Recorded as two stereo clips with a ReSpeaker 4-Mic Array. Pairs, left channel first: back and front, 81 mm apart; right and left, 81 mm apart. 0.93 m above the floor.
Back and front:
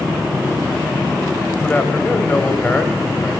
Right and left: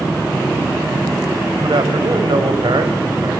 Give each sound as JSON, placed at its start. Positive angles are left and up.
{"t": 1.6, "sound": "a man speaking", "azimuth_deg": 110, "distance_m": 5.5}